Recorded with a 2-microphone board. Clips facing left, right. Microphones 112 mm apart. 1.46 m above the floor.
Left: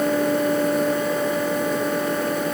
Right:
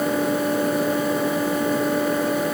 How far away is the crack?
No crack in this recording.